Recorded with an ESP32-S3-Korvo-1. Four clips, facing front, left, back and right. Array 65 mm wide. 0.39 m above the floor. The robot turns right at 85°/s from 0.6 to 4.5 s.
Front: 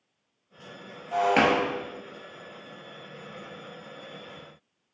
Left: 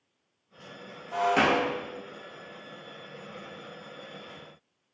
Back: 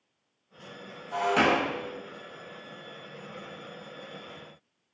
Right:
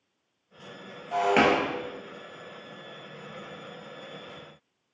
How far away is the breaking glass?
About 0.7 m.